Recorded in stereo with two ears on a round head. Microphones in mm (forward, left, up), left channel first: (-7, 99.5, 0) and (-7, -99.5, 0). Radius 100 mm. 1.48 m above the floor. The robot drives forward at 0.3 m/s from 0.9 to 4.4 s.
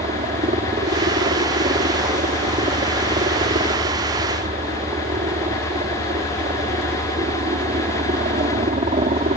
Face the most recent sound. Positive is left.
turn(degrees=-30)  # may be behind; listen again after turning